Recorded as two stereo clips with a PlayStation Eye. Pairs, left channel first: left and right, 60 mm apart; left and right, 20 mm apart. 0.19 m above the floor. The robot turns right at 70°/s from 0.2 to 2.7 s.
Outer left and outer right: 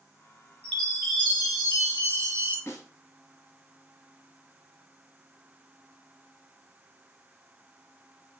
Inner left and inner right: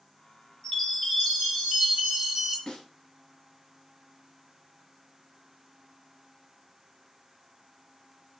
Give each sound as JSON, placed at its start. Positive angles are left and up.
{"t": 0.6, "sound": "a chime", "azimuth_deg": 155, "distance_m": 1.6}
{"t": 2.7, "sound": "a snare drum", "side_deg": 50, "distance_m": 1.4}